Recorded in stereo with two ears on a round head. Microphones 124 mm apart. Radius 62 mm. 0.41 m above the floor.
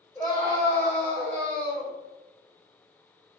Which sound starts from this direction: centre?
A scream, at 0.1 s.